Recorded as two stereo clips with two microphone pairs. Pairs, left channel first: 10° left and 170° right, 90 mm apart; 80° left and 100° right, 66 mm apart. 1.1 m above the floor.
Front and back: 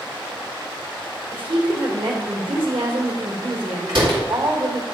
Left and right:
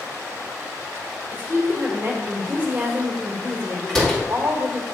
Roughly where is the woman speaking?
Behind right.